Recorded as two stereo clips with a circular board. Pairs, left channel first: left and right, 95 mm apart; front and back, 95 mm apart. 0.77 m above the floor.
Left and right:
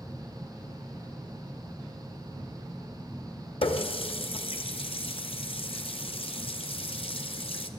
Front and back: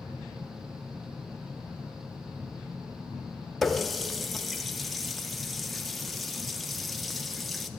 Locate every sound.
3.6 s a running tap: 90° left, 0.6 m